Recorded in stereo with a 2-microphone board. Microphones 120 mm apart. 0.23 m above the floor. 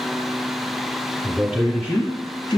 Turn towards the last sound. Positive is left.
turn(degrees=45)  # may be behind; listen again after turning